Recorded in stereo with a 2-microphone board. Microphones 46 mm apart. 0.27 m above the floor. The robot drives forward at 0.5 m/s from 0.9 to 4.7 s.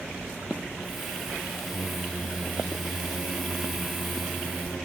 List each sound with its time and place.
1.7 s singing: centre (ahead or behind), 1.1 m